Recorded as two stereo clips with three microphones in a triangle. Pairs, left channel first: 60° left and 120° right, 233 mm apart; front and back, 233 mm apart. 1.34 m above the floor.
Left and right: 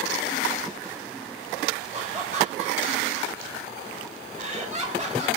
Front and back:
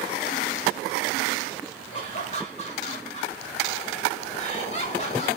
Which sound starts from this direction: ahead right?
Laughter, at 1.9 s.